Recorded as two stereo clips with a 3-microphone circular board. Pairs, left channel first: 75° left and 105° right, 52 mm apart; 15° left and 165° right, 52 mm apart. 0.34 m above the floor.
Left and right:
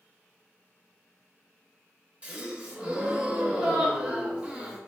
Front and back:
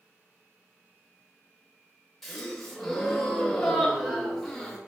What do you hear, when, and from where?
2.2 s a gasp: 65° right, 0.6 m